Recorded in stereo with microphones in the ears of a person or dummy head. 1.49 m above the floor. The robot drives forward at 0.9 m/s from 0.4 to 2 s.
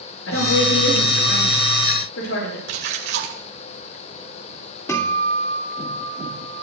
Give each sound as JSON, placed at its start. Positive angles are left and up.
{"t": 0.3, "sound": "a woman speaking", "side_deg": 85, "distance_m": 8.0}
{"t": 2.7, "sound": "a splash", "side_deg": -55, "distance_m": 1.9}
{"t": 4.9, "sound": "a guitar", "side_deg": 20, "distance_m": 2.5}